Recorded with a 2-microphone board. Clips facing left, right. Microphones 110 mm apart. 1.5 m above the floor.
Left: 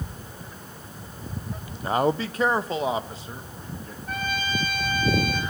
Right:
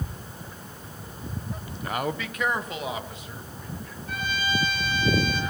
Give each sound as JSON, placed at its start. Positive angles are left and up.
{"t": 1.8, "sound": "a man speaking", "side_deg": 30, "distance_m": 0.6}
{"t": 4.1, "sound": "a trumpet", "side_deg": 50, "distance_m": 4.0}